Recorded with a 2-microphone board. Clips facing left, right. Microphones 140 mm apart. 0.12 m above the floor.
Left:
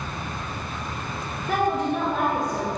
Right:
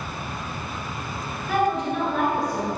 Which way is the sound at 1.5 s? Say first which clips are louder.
Even; 45° left (ahead or behind).